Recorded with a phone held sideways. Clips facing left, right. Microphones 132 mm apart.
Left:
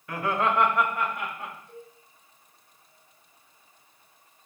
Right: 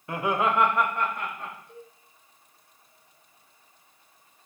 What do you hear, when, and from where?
0.1 s laughter: 25° right (ahead or behind), 1.0 m; by 1.6 s 10° left (ahead or behind), 2.5 m
1.7 s a cowbell: 50° left (ahead or behind), 2.5 m